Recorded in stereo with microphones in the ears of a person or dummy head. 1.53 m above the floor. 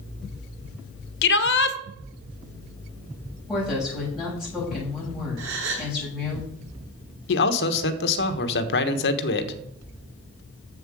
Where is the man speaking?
65° left (ahead or behind), 1.2 m.